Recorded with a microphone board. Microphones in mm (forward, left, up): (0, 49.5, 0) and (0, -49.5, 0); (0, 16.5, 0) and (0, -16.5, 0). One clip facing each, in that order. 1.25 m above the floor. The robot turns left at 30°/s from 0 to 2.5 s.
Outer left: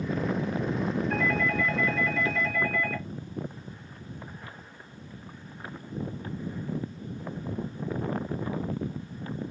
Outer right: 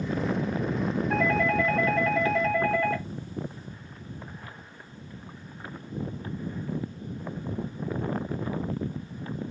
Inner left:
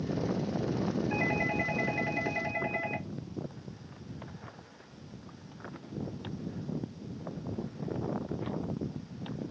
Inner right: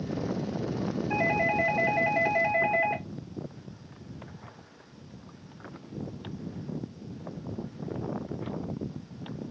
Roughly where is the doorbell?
Ahead right.